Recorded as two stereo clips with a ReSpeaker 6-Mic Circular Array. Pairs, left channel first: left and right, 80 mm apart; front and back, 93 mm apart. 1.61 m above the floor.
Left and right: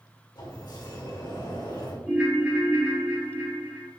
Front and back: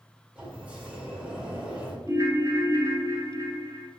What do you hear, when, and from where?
0.3 s a sliding door: 105° left, 2 m
2.1 s a ringtone: 150° right, 1.4 m